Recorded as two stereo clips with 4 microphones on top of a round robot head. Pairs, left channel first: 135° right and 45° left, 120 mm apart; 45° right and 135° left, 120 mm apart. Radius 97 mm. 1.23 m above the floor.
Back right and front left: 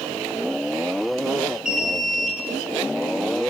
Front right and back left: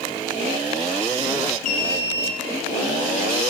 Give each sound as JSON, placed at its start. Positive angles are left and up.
{"t": 1.6, "sound": "an alarm", "azimuth_deg": -40, "distance_m": 6.0}